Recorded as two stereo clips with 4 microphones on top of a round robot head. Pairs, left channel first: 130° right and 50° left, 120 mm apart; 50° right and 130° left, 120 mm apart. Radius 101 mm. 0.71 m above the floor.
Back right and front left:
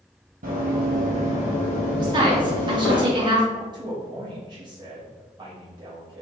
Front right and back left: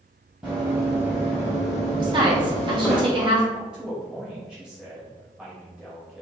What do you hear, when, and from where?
0.4 s running footsteps: 50° left, 1.4 m; by 3.0 s 135° right, 1.9 m
2.0 s a woman speaking: 90° left, 1.4 m
3.5 s a man speaking: 50° left, 1.0 m